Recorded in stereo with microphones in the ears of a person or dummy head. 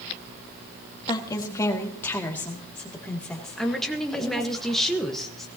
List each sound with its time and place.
1.1 s a woman speaking: 20° left (ahead or behind), 1.7 m; by 4.6 s centre (ahead or behind), 3.5 m
3.6 s a woman speaking: centre (ahead or behind), 1.3 m